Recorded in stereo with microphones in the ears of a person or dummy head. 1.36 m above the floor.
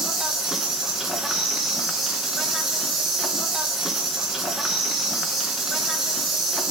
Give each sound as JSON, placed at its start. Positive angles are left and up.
{"t": 0.0, "sound": "an insect", "side_deg": 5, "distance_m": 1.3}